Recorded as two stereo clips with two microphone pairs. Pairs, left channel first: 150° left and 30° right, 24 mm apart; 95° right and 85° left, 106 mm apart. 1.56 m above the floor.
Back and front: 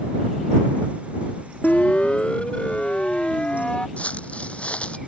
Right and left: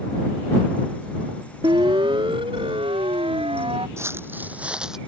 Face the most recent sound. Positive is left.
turn(degrees=170)